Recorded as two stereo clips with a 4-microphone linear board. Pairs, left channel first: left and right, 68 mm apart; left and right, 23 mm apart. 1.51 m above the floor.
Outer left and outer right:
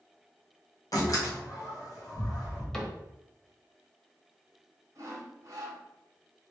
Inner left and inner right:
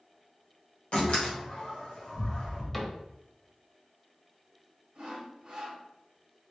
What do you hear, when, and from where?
0.9 s a door slam: 50° left (ahead or behind), 1.5 m
2.7 s a cupboard door: 10° left (ahead or behind), 1.0 m
5.0 s sawing: 45° right (ahead or behind), 1.8 m